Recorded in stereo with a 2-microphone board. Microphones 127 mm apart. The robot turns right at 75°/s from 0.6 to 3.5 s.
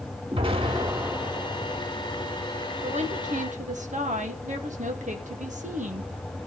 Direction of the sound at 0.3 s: 50° right.